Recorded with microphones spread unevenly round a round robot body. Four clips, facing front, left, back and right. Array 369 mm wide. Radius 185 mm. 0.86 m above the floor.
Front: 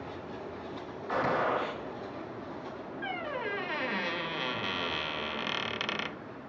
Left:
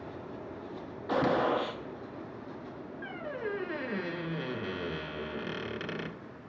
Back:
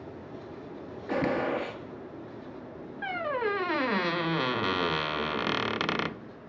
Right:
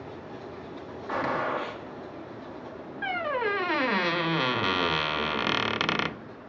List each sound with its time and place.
1.1 s a gunshot: 150° left, 0.9 m
3.0 s a squeak: 100° right, 0.5 m